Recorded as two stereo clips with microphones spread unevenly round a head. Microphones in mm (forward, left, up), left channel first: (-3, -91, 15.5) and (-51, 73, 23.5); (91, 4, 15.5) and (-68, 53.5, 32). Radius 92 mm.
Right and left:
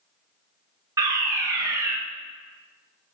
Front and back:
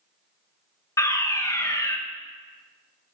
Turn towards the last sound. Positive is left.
turn(degrees=40)